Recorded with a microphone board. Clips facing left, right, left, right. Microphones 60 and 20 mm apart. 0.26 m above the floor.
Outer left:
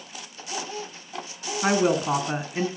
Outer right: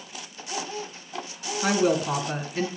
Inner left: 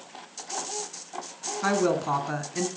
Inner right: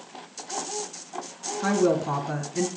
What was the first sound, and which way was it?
A woman speaking, 20° left (ahead or behind).